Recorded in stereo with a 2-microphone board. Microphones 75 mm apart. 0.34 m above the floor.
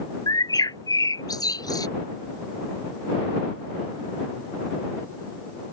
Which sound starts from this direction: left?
A bird, at 0.3 s.